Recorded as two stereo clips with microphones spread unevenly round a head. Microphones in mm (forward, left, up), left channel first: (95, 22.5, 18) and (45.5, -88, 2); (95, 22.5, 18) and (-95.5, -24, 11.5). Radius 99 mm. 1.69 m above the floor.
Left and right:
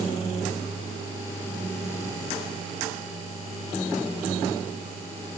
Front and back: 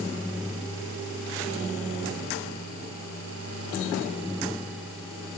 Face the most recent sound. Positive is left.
No sound to turn to.